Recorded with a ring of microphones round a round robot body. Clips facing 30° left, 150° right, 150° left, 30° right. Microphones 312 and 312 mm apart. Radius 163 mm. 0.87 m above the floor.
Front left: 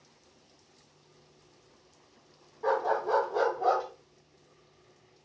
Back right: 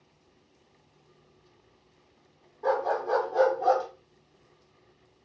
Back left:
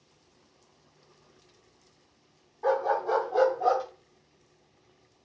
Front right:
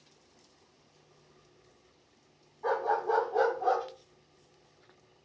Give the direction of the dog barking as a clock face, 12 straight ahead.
8 o'clock.